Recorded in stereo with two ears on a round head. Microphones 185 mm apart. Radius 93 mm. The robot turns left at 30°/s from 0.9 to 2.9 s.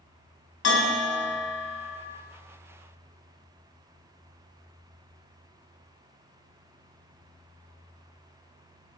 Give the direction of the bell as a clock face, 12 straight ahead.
9 o'clock.